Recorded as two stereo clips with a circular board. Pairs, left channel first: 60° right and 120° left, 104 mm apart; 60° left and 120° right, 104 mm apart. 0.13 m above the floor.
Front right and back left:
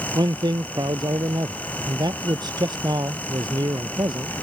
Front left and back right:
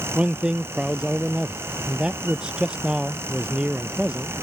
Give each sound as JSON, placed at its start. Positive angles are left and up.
{"t": 0.1, "sound": "a man speaking", "azimuth_deg": 160}